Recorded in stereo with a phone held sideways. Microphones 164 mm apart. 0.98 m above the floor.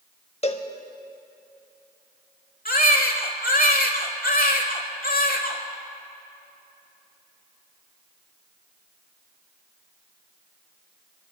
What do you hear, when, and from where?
0.4 s a cowbell: 40° left (ahead or behind), 0.8 m
2.6 s a baby crying: 60° left (ahead or behind), 1.2 m